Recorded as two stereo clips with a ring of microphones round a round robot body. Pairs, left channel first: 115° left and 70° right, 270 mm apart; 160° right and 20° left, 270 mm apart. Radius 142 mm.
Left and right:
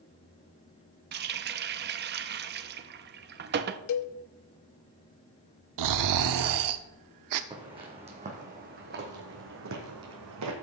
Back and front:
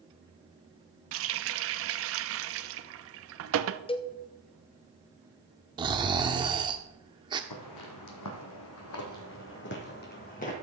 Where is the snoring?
50° right, 0.6 m.